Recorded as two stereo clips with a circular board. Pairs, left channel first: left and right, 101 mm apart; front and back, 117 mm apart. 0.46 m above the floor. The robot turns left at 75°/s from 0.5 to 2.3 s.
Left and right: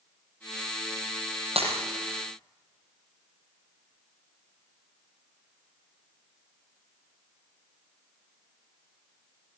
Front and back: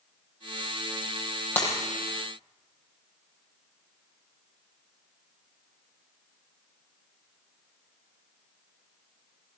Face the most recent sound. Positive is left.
turn(degrees=-130)